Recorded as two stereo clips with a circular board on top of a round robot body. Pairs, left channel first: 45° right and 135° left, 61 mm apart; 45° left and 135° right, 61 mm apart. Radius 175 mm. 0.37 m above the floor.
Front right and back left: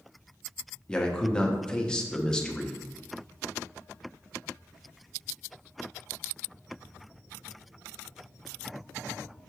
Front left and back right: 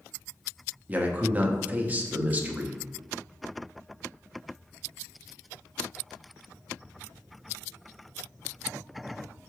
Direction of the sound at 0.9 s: 110° right.